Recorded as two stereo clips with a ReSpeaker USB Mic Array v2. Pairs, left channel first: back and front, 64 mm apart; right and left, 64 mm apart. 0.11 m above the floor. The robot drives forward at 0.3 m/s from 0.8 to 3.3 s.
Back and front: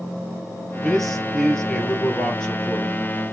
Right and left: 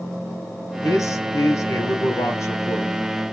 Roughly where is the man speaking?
Right.